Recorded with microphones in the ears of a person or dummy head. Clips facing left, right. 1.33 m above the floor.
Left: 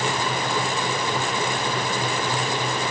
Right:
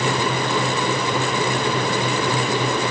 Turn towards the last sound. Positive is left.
No sound to turn to.